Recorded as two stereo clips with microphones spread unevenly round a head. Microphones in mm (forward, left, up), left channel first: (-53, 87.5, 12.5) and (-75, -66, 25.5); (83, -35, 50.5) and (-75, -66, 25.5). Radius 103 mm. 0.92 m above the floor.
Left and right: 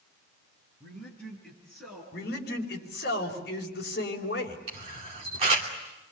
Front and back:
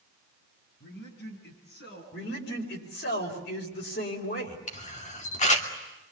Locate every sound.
0.8 s a man speaking: straight ahead, 7 m; by 2.0 s 5° right, 8.5 m
2.1 s a man speaking: 45° left, 4.5 m
4.7 s a camera shutter: 35° right, 3 m